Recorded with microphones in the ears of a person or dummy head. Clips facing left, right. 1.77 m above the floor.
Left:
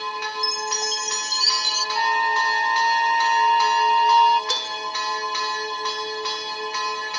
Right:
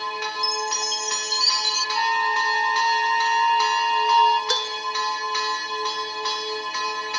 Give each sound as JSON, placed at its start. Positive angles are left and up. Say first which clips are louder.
{"t": 0.4, "sound": "a chime", "louder": "even", "side_deg": 60, "distance_m": 1.4}
{"t": 1.9, "sound": "a flute", "louder": "left 2 dB", "side_deg": 35, "distance_m": 1.6}
{"t": 4.5, "sound": "dishes clattering", "louder": "right 3 dB", "side_deg": 5, "distance_m": 2.5}